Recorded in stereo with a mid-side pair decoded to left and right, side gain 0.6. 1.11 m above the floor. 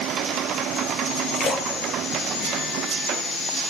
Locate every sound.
1.3 s a splash: 45° left, 4.5 m